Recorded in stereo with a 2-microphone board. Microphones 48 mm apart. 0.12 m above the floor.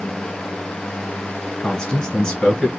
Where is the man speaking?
15° left (ahead or behind), 1.7 m.